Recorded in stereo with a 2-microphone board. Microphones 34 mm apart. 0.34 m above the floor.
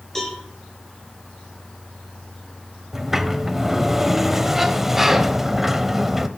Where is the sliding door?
10° right (ahead or behind), 0.5 m.